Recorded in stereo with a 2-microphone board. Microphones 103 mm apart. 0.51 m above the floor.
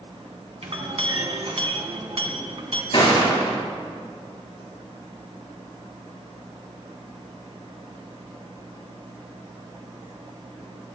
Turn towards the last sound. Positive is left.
turn(degrees=55)  # may be behind; listen again after turning